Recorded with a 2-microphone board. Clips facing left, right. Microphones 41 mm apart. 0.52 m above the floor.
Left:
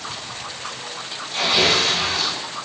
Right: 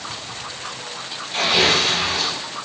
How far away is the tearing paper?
About 0.8 m.